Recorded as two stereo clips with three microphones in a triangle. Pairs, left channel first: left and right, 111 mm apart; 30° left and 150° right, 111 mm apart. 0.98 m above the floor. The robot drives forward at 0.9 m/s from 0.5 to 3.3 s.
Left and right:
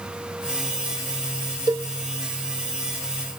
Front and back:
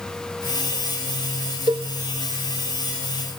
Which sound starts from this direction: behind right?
A cowbell, at 1.7 s.